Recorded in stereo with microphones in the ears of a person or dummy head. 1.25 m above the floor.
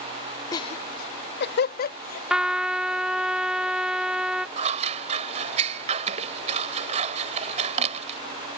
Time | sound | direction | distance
0.5 | laughter | 25° left (ahead or behind) | ?
2.3 | a trumpet | 10° right (ahead or behind) | ?
4.6 | scissors | 35° right (ahead or behind) | ?